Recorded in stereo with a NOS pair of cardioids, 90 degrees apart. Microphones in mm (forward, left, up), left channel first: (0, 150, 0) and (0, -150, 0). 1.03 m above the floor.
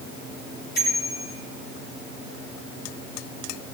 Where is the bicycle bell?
35° left, 9.5 m.